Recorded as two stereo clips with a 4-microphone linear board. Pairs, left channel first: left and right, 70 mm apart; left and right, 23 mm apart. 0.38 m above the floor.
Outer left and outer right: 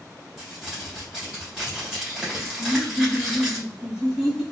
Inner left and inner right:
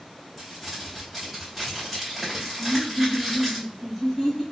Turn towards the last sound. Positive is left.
turn(degrees=-10)  # may be behind; listen again after turning